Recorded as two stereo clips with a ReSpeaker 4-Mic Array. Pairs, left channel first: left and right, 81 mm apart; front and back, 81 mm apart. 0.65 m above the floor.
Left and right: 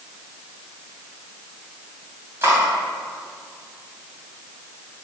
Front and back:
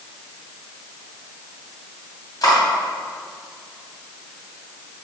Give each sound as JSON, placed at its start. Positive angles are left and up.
{"t": 2.4, "sound": "cutlery clinking", "azimuth_deg": -30, "distance_m": 3.0}